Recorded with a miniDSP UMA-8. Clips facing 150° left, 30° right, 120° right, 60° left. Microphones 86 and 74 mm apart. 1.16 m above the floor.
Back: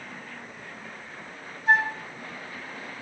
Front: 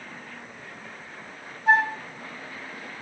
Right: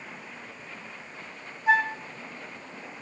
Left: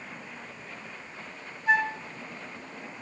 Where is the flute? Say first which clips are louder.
Front 2 dB, right 2 dB; 55° right, 1.6 m.